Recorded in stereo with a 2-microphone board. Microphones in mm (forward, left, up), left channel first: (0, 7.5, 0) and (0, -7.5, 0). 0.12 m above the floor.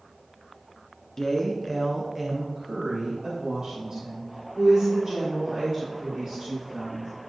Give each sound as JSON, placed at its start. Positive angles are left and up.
{"t": 1.2, "sound": "a woman speaking", "side_deg": 35, "distance_m": 1.4}